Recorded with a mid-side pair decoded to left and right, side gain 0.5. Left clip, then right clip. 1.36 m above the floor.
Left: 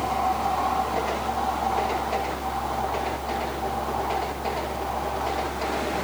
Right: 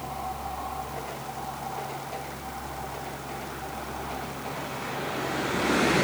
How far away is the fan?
About 3.5 m.